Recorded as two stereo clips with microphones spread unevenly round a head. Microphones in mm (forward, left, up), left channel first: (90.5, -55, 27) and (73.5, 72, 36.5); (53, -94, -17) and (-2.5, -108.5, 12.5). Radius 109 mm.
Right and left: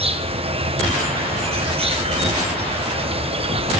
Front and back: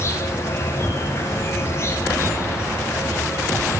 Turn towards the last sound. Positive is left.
turn(degrees=55)